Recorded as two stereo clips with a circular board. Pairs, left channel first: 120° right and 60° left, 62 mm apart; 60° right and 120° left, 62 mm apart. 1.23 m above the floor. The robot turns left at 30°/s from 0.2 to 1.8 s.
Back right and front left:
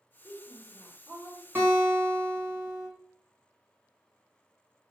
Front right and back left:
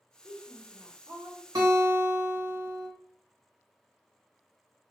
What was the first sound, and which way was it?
A woman speaking, 175° left.